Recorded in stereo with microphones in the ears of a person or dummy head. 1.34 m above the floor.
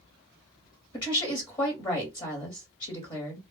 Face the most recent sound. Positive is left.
turn(degrees=25)  # may be behind; listen again after turning